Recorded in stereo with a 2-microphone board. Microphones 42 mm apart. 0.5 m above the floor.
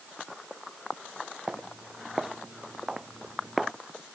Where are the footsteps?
20° right (ahead or behind); by 3.7 s 5° right (ahead or behind).